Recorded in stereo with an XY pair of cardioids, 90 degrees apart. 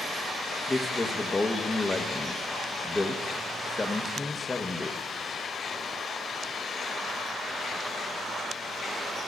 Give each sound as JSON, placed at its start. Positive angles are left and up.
{"t": 0.7, "sound": "a man speaking", "azimuth_deg": 25, "distance_m": 0.9}